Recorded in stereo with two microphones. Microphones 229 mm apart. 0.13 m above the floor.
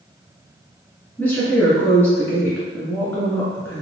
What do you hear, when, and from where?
1.2 s a woman speaking: 5° left (ahead or behind), 1.7 m